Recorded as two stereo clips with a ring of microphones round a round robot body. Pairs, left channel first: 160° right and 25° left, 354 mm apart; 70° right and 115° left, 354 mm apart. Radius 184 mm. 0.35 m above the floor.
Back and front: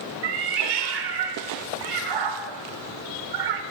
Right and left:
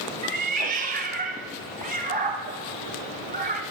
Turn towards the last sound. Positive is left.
turn(degrees=45)